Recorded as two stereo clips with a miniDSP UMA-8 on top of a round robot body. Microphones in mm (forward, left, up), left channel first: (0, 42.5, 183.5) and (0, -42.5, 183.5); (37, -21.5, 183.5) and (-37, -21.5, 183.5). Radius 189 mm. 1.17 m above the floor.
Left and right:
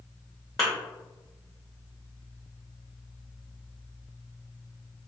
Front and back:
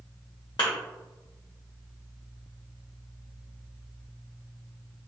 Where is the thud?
40° left, 0.6 m.